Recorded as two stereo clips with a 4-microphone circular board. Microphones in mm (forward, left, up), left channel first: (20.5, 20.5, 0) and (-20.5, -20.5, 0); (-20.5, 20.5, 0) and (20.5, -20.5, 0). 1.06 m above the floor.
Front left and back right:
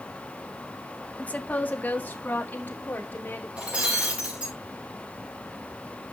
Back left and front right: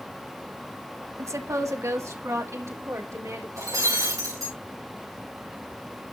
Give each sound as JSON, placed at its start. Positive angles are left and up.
{"t": 1.2, "sound": "a woman speaking", "azimuth_deg": -20, "distance_m": 1.0}
{"t": 3.6, "sound": "breaking glass", "azimuth_deg": -65, "distance_m": 5.0}